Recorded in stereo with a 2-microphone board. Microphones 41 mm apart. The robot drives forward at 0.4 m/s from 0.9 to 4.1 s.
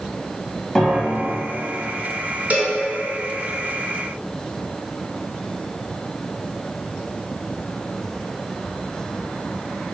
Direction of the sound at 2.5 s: 40° right (ahead or behind).